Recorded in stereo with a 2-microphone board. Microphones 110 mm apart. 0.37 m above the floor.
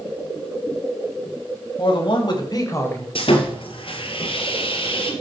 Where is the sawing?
60° left (ahead or behind), 1.8 m.